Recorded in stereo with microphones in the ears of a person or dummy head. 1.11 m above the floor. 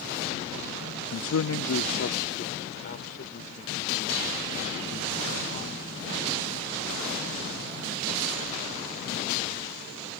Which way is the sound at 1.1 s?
60° left (ahead or behind).